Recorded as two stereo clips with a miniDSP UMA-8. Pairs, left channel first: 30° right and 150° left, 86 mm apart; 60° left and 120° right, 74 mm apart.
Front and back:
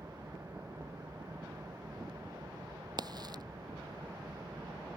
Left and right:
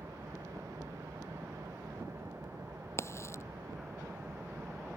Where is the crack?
110° left.